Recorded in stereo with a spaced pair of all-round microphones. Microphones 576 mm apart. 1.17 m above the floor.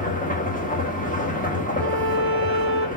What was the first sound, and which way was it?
A machine running, 15° left (ahead or behind).